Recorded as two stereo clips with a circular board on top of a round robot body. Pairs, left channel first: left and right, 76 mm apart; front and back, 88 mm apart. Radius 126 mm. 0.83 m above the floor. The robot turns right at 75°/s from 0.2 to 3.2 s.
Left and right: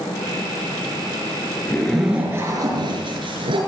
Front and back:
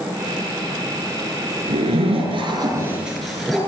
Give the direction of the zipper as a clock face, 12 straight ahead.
7 o'clock.